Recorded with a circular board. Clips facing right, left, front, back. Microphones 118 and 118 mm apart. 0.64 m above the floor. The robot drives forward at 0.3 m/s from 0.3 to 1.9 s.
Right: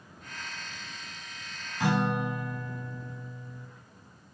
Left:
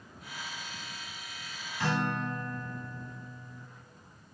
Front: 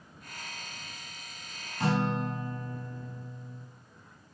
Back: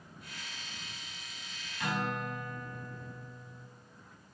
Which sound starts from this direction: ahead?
A guitar, at 1.8 s.